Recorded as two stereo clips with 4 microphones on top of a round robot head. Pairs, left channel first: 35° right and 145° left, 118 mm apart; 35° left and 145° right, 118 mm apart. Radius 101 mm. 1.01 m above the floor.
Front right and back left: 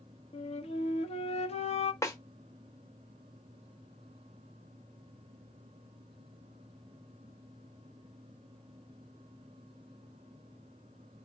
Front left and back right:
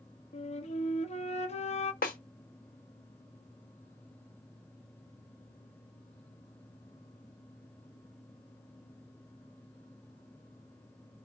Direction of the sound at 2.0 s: 30° left.